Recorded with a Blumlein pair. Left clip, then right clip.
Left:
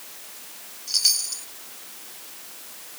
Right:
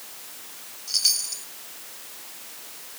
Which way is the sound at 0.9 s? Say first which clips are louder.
Left 1 dB; 5° left.